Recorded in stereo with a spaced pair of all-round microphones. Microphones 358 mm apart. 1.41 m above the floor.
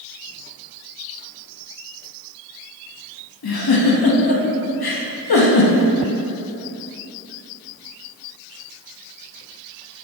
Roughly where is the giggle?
Left.